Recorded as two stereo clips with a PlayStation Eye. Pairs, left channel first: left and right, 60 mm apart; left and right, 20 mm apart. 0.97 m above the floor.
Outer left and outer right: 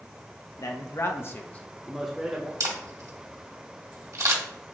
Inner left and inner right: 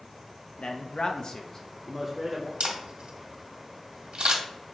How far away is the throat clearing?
No throat clearing in this recording.